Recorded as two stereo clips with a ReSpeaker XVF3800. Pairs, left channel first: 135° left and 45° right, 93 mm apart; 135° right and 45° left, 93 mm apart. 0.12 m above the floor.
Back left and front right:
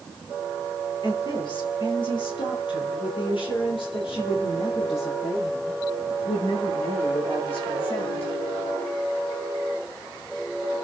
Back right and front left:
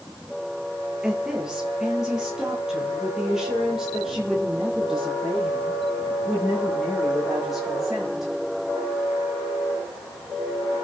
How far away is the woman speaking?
About 2.5 m.